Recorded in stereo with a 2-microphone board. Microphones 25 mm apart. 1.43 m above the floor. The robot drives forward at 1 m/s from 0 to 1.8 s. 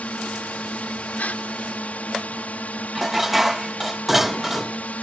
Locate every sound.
0.0 s a drone: 70° left (ahead or behind)
1.2 s a gasp: 80° left; by 1.4 s 75° left (ahead or behind)
3.0 s dishes clattering: 15° right (ahead or behind)